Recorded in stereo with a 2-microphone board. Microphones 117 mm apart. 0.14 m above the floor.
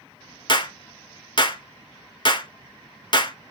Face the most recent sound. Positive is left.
turn(degrees=45)  # may be behind; listen again after turning